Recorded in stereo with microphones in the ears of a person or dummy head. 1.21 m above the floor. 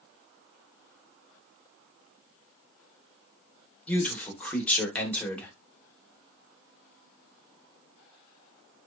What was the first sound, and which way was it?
A man speaking, 10° left (ahead or behind).